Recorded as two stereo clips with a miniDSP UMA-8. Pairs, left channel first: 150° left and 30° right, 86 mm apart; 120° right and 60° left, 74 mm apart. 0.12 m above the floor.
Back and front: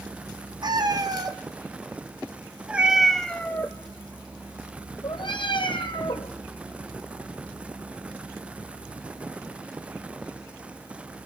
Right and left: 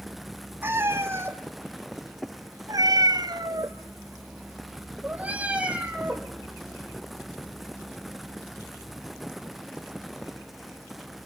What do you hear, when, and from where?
0.6 s a cat meowing: straight ahead, 2.5 m; by 6.3 s 140° left, 3 m